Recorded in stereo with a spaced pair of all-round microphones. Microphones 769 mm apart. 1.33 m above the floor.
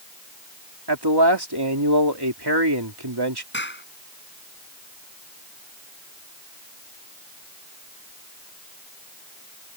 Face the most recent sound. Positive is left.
turn(degrees=15)  # may be behind; listen again after turning